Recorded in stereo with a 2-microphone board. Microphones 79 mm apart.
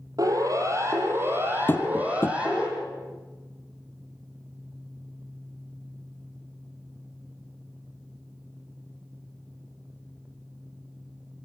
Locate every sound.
0.2 s a siren: 50° right (ahead or behind), 3.5 m; by 2.7 s 10° right (ahead or behind), 5 m
1.7 s tapping: 30° left (ahead or behind), 1.4 m